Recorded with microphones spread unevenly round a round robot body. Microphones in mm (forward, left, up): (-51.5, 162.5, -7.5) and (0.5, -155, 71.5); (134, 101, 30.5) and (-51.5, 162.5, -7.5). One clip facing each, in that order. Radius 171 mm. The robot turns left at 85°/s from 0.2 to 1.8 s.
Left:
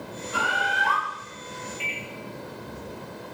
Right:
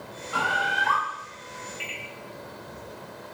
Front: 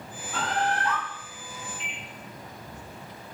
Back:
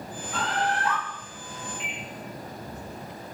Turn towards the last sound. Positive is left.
turn(degrees=-155)